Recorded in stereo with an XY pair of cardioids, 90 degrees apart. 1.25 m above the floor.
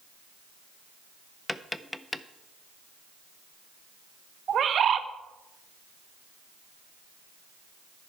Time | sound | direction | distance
1.5 | tapping | 15° left | 0.6 m
4.5 | a bird | 60° right | 0.9 m